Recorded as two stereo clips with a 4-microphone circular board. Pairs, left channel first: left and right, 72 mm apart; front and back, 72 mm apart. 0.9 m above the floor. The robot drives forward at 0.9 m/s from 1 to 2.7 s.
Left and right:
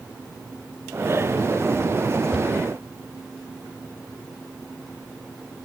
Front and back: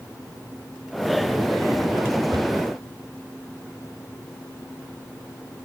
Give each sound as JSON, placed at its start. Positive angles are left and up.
{"t": 2.3, "sound": "a cupboard door", "azimuth_deg": -165, "distance_m": 2.5}